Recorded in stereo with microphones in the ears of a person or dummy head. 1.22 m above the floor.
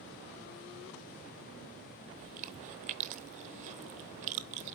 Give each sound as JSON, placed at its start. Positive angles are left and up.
{"t": 2.2, "sound": "chewing", "side_deg": -40, "distance_m": 0.7}